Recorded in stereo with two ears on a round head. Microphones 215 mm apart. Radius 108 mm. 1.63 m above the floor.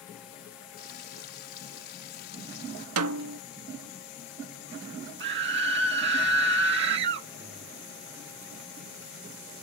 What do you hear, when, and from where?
0.8 s frying: 45° left (ahead or behind)
3.0 s a snare drum: 65° right (ahead or behind)
5.2 s a scream: 50° right (ahead or behind)